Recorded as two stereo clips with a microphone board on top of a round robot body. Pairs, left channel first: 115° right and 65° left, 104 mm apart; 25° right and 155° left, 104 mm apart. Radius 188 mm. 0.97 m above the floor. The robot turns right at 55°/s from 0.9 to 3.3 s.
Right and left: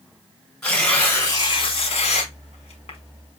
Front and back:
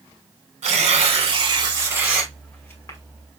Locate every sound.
0.6 s tearing paper: 165° left, 2 m; by 3.0 s 80° right, 2 m